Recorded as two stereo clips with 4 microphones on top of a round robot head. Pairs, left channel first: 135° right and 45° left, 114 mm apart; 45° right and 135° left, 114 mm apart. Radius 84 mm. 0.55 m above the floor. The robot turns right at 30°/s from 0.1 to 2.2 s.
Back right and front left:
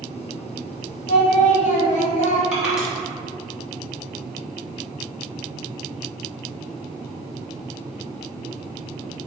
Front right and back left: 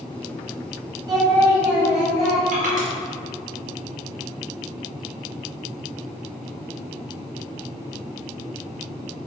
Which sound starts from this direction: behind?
Singing, at 1.1 s.